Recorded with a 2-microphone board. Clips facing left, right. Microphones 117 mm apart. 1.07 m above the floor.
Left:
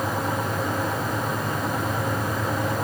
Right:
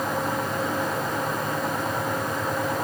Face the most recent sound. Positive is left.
No sound to turn to.